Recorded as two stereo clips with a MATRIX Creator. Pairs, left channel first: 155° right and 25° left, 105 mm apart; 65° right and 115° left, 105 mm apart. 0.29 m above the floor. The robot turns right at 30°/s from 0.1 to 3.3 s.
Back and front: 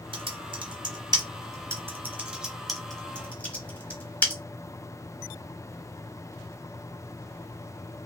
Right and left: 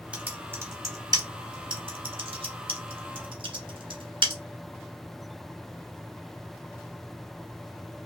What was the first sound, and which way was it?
Typing on a keyboard, 35° left.